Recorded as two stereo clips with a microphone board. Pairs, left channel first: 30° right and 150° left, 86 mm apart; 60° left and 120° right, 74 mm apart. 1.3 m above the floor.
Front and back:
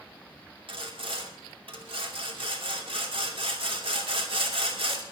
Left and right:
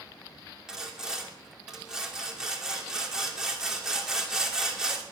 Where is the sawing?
160° left, 2.5 m.